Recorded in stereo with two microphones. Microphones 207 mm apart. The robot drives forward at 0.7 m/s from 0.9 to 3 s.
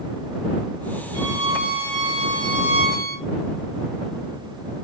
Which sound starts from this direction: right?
A violin, at 1.1 s.